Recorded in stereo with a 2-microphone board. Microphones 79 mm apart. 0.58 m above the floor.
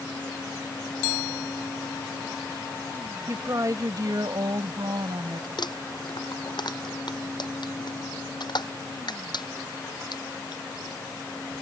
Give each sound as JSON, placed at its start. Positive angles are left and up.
{"t": 3.3, "sound": "a woman speaking", "side_deg": -40}
{"t": 5.6, "sound": "crumpling", "side_deg": 65}